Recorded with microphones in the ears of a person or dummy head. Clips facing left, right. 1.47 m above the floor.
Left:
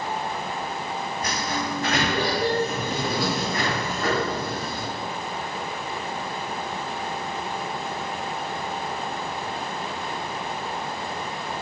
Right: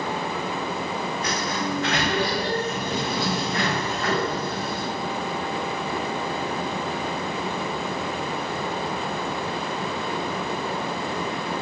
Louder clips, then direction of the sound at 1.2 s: Right 1 dB; 40° left (ahead or behind).